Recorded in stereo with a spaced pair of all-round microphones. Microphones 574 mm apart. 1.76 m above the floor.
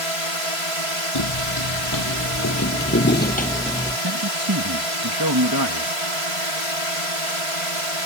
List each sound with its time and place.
0.0 s a drone: 65° right (ahead or behind)
1.1 s footsteps: 45° left (ahead or behind); by 4.0 s 5° left (ahead or behind)
4.0 s a man speaking: 35° right (ahead or behind)